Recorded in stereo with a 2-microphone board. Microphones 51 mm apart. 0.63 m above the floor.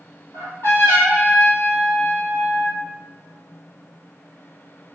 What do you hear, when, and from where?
0.3 s a trumpet: 65° left (ahead or behind), 3 m